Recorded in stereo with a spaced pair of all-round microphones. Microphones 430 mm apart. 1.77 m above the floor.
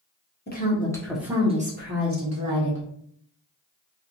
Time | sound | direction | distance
0.5 | a woman speaking | 25° left (ahead or behind) | 1.0 m